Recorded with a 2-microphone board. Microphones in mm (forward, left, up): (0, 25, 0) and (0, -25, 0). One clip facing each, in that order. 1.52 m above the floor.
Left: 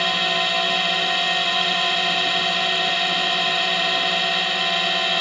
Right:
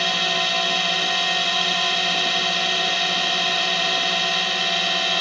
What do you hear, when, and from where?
0.0 s a drone: 5° left (ahead or behind)